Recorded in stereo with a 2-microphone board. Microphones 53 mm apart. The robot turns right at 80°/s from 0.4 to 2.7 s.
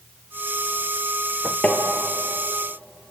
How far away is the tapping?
About 3 m.